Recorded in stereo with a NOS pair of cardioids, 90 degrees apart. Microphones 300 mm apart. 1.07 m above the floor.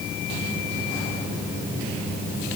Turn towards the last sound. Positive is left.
No sound to turn to.